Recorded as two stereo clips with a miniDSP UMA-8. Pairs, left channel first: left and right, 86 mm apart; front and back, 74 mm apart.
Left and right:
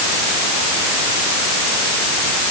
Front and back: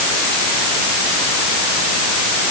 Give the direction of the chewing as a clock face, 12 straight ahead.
No chewing in this recording.